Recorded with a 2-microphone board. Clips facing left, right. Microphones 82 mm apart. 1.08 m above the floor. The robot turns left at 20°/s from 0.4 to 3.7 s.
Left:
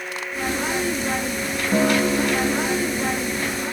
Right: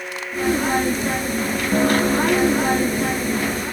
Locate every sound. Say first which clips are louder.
1.7 s a guitar: right 1 dB; 5° left; by 3.6 s 35° right